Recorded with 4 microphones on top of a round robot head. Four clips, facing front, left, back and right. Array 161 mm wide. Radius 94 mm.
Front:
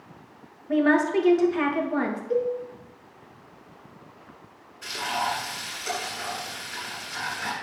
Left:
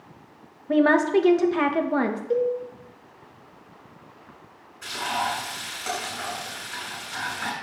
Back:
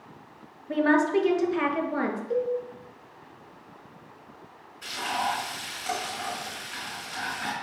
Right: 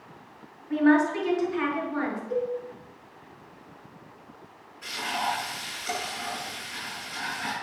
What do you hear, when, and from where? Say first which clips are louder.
0.7 s a woman speaking: left 2 dB, front 1 dB; 95° left, 2.5 m
2.3 s a cowbell: left 7 dB, front 3 dB; 95° left, 3.5 m
4.8 s frying: left 3 dB, front 1 dB; 110° left, 7.5 m